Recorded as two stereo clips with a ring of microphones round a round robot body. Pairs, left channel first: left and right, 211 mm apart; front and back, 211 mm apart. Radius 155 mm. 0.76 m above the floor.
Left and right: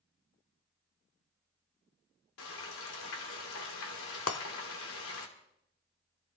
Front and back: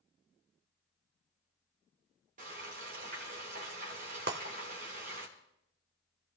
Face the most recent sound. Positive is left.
turn(degrees=125)